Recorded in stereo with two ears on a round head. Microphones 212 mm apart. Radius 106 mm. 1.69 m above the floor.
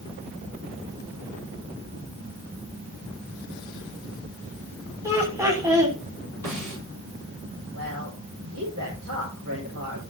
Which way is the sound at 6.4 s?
75° right (ahead or behind).